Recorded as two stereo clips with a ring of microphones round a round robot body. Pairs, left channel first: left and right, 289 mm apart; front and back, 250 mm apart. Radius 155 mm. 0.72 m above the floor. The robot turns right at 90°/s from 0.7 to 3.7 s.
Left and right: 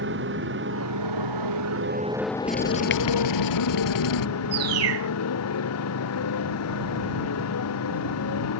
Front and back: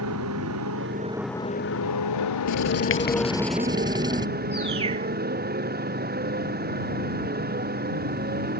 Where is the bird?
110° right.